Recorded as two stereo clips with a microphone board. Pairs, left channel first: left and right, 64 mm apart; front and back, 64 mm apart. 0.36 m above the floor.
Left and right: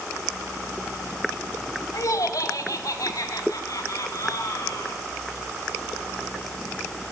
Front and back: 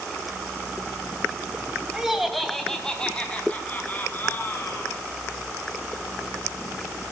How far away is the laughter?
About 2.5 m.